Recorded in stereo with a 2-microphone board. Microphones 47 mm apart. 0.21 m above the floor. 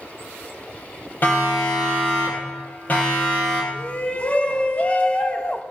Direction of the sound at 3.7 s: 30° left (ahead or behind).